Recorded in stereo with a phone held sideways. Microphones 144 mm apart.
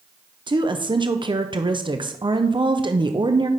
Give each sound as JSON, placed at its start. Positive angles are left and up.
{"t": 0.5, "sound": "a woman speaking", "side_deg": -35, "distance_m": 0.6}